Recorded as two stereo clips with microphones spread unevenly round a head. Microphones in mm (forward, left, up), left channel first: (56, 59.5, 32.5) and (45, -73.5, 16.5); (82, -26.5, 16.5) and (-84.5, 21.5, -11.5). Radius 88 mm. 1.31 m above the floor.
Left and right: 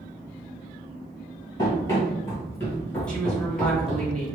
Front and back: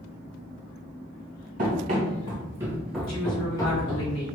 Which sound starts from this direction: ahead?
A woman speaking, at 3.1 s.